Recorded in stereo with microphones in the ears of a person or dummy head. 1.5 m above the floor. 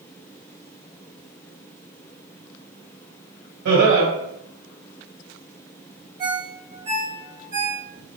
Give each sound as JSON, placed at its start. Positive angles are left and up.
{"t": 3.6, "sound": "laughter", "side_deg": -65, "distance_m": 1.4}
{"t": 6.2, "sound": "a ringtone", "side_deg": -30, "distance_m": 1.2}